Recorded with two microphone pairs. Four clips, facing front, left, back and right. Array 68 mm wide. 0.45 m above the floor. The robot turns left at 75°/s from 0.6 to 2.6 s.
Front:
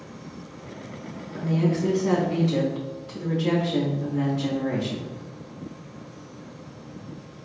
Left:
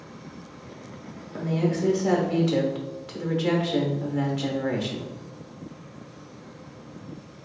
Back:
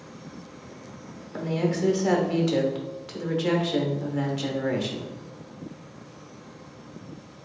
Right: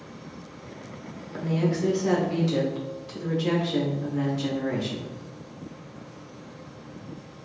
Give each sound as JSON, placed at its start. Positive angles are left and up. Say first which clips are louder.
{"t": 1.3, "sound": "a woman speaking", "louder": "even, front 2 dB", "azimuth_deg": -125, "distance_m": 1.0}